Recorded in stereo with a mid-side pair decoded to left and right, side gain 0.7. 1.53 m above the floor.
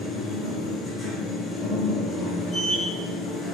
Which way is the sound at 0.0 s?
20° left.